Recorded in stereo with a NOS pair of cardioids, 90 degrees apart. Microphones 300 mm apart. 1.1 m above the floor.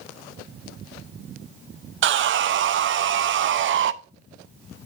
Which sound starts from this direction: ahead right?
Sawing, at 2.0 s.